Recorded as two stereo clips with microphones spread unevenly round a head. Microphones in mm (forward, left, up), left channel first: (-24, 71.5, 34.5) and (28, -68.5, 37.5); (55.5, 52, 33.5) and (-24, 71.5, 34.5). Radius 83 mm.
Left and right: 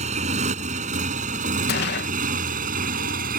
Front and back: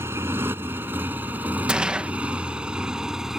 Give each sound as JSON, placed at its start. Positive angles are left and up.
{"t": 0.0, "sound": "a motorcycle", "azimuth_deg": -120}
{"t": 1.7, "sound": "a gunshot", "azimuth_deg": 90}